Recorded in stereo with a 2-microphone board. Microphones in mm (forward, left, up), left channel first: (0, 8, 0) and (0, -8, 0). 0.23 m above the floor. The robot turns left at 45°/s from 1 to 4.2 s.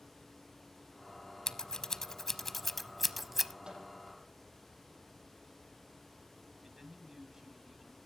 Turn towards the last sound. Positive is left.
turn(degrees=-30)  # may be behind; listen again after turning